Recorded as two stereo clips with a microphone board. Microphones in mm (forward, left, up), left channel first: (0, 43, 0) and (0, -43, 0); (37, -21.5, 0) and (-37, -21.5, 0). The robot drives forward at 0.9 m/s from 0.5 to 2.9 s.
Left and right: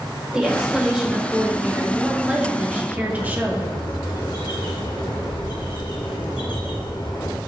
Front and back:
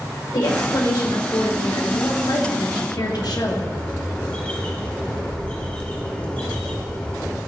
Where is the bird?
70° left, 1.5 m.